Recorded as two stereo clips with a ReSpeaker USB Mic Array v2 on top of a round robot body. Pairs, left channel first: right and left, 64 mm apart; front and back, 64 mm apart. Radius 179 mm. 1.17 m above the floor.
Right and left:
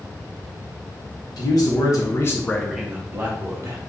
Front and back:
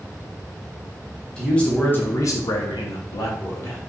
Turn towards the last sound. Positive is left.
turn(degrees=45)